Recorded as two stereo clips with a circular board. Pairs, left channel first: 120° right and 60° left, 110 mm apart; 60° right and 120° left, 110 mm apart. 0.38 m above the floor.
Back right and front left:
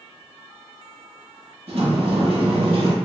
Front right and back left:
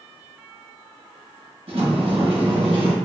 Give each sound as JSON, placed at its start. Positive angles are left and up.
{"t": 1.7, "sound": "a sliding door", "azimuth_deg": 90, "distance_m": 0.6}